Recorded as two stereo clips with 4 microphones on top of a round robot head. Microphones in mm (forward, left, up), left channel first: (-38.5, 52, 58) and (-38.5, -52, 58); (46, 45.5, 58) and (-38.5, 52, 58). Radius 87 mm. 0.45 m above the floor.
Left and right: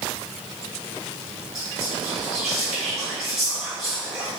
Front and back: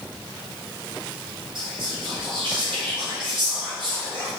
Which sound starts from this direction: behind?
Whispering, at 1.6 s.